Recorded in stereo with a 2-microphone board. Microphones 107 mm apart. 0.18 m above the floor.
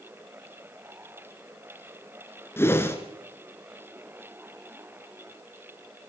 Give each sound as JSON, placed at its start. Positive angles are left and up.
{"t": 2.6, "sound": "a whoosh", "side_deg": 20, "distance_m": 2.0}